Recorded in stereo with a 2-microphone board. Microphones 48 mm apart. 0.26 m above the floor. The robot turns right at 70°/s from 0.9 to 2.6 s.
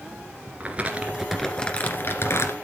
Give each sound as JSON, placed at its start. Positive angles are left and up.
{"t": 0.6, "sound": "crumpling", "azimuth_deg": -30, "distance_m": 1.9}